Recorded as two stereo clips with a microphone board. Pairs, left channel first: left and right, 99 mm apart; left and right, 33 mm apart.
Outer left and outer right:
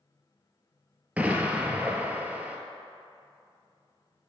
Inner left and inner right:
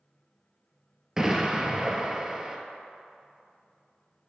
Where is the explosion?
15° right (ahead or behind), 0.6 m.